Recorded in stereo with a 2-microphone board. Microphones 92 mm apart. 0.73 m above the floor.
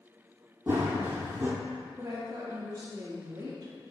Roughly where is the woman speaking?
Right.